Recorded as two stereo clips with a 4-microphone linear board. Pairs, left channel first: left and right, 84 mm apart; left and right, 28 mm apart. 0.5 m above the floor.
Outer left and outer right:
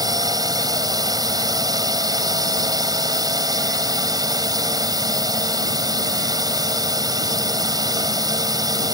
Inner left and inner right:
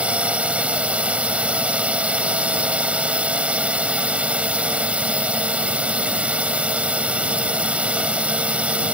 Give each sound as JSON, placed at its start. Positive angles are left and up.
{"t": 0.0, "sound": "a drone", "side_deg": -50}